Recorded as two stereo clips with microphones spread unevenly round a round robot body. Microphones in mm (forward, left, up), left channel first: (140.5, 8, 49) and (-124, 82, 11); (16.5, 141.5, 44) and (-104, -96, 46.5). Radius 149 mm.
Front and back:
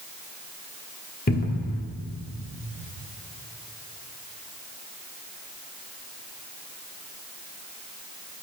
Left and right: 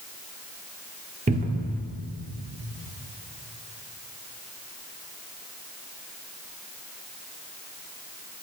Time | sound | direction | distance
1.3 | a cupboard door | 70° right | 1.6 m